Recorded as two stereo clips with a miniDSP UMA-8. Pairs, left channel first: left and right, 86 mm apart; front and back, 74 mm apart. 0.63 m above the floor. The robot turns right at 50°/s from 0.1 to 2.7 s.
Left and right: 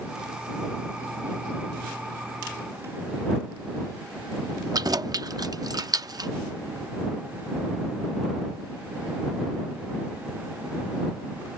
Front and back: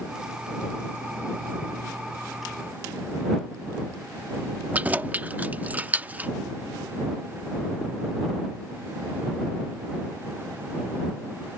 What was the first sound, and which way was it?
Keys jangling, 115° right.